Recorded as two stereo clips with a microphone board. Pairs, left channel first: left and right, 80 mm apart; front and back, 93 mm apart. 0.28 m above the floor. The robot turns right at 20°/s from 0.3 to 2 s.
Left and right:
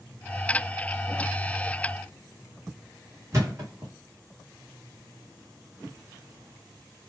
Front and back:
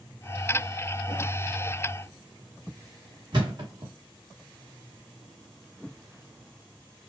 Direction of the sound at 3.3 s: 145° right.